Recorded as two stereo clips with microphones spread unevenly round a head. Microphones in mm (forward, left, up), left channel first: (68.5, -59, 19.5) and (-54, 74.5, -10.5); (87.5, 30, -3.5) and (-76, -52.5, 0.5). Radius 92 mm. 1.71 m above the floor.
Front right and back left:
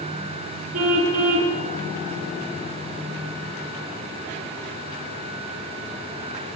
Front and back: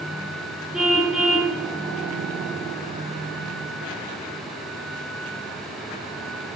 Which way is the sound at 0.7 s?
120° left.